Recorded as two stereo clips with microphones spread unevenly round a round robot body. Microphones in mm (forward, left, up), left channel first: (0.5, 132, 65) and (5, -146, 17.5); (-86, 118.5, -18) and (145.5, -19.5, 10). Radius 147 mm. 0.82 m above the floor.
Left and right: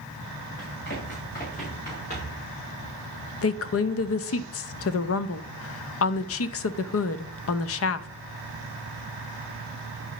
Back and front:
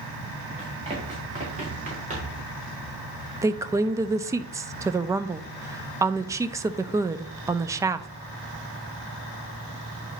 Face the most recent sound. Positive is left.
turn(degrees=50)